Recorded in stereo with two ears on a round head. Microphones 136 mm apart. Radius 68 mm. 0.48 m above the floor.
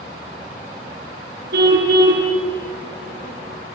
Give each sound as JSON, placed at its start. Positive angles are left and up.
{"t": 1.5, "sound": "a car horn", "side_deg": -75, "distance_m": 3.0}